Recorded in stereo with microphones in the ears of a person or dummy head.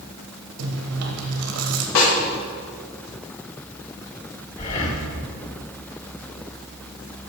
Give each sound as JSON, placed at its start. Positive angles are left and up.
{"t": 0.6, "sound": "chewing", "side_deg": -85, "distance_m": 1.8}
{"t": 1.9, "sound": "a snare drum", "side_deg": 80, "distance_m": 5.5}
{"t": 4.6, "sound": "breathing", "side_deg": 40, "distance_m": 2.0}